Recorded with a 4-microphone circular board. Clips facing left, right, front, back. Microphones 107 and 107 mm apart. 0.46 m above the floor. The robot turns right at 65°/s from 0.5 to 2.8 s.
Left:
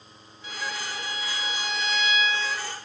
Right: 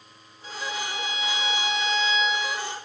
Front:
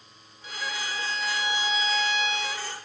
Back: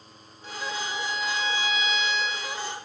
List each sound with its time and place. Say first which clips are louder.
0.4 s a violin: right 2 dB, back 2 dB; 140° right, 0.8 m; by 2.7 s 5° left, 0.8 m